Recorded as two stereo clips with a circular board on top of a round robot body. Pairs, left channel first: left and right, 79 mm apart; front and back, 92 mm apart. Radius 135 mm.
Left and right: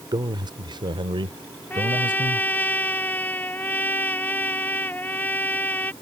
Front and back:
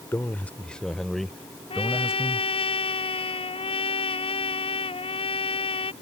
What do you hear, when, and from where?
0.1 s a man speaking: 65° right; by 2.5 s 100° right
1.7 s a trumpet: 20° left